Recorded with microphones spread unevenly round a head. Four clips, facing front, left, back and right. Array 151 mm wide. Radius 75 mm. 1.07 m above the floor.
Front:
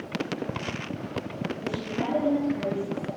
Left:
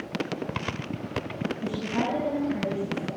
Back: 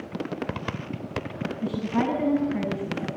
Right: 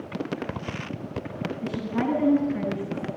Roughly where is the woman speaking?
Behind.